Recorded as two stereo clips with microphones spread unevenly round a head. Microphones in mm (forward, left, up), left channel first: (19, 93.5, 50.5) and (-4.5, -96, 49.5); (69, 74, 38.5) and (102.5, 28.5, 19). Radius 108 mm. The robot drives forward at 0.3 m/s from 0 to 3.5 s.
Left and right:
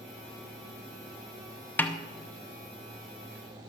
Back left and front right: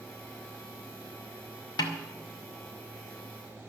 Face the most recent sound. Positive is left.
turn(degrees=170)